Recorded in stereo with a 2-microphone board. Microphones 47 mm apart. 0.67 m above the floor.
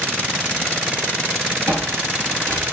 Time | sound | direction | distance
1.7 | footsteps | 60° right (ahead or behind) | 1.9 m